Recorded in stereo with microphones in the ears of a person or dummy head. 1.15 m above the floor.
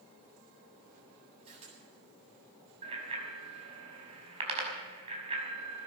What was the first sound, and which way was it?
A camera shutter, 30° right (ahead or behind).